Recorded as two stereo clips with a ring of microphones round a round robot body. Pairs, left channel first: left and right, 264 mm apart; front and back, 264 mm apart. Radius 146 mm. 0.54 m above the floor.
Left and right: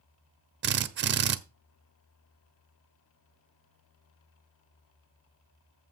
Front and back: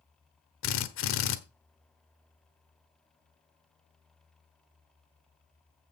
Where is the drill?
45° right, 0.8 m.